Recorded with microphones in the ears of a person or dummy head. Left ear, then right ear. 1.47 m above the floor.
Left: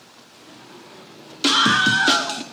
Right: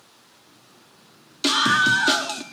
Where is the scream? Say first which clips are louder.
Left 2 dB; centre (ahead or behind), 0.9 m.